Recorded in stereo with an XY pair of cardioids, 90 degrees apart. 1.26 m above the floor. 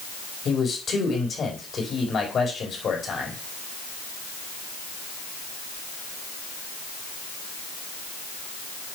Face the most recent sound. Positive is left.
turn(degrees=50)